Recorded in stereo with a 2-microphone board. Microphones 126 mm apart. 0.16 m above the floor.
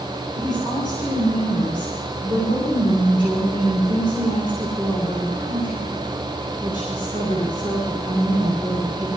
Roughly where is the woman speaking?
Left.